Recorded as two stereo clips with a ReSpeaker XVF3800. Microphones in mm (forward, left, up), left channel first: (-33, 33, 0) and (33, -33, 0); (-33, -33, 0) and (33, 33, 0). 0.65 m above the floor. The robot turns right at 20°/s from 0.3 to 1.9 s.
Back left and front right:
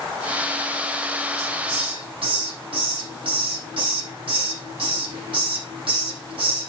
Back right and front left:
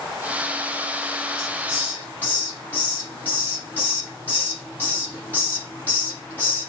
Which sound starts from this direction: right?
A hiss, at 1.4 s.